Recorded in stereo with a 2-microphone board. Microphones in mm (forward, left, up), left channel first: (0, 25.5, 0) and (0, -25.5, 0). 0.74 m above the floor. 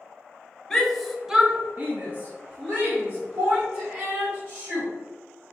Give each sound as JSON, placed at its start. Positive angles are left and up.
{"t": 0.7, "sound": "a shout", "side_deg": 10, "distance_m": 1.1}